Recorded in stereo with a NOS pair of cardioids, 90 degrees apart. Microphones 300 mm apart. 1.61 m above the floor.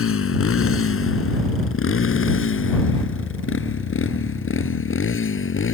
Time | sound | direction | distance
0.0 | a motorcycle | 45° left | ?